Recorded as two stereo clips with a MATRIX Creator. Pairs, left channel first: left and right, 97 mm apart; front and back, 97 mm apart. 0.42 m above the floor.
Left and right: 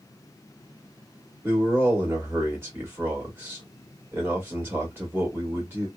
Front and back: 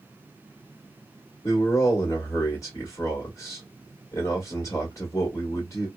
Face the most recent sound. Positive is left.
turn(degrees=-35)